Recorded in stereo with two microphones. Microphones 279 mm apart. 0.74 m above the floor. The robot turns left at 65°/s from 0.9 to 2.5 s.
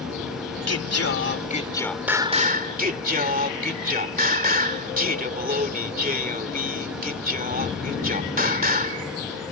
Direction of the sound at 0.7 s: 70° left.